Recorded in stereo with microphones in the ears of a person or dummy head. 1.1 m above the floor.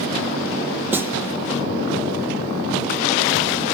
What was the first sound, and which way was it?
A snare drum, 10° right (ahead or behind).